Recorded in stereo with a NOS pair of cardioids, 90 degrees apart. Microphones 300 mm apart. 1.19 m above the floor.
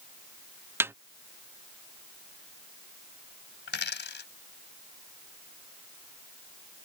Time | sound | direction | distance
0.8 | a snare drum | 10° right | ?
3.7 | a dropped coin | 35° left | ?